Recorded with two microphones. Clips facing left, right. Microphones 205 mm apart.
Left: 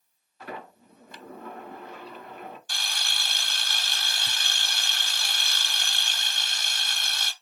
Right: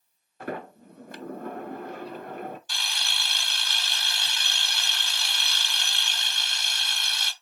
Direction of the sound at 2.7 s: 45° left (ahead or behind).